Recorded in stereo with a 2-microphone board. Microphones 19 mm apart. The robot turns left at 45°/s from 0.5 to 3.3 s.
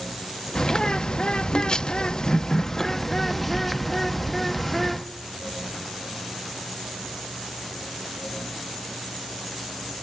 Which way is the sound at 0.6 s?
130° left.